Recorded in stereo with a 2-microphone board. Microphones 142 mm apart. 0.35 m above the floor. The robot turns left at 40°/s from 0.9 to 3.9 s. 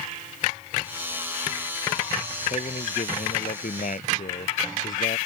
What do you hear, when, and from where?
2.5 s a man speaking: 130° left; by 5.2 s 70° left